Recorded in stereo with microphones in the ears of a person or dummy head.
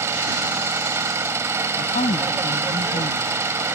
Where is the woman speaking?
45° left (ahead or behind).